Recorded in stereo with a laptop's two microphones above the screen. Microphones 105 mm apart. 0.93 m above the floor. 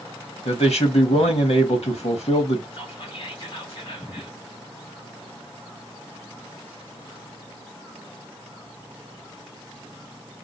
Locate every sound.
0.5 s a man speaking: 80° left, 1.3 m
2.7 s whispering: 55° left (ahead or behind), 1.3 m